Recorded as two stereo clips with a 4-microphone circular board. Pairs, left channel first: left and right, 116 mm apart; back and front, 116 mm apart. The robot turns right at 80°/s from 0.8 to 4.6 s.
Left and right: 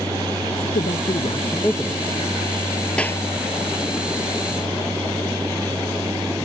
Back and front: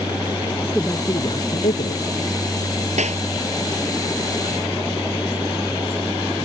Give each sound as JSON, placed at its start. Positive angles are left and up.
{"t": 0.7, "sound": "a man speaking", "azimuth_deg": 100}
{"t": 3.0, "sound": "a clap", "azimuth_deg": 10}